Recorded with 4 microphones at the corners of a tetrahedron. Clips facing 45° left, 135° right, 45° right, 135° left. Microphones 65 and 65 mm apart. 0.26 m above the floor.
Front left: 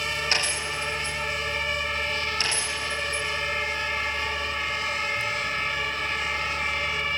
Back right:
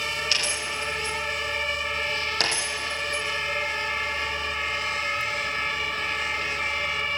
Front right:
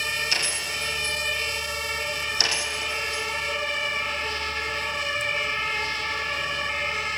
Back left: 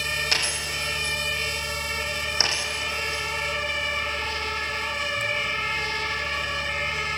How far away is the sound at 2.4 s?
About 5 m.